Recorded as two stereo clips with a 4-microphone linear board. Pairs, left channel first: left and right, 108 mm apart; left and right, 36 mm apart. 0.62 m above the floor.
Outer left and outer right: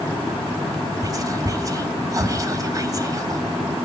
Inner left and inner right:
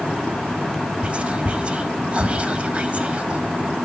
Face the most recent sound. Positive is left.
turn(degrees=-35)  # may be behind; listen again after turning